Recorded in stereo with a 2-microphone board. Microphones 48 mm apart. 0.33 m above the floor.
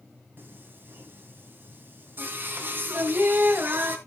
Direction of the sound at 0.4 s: 50° right (ahead or behind).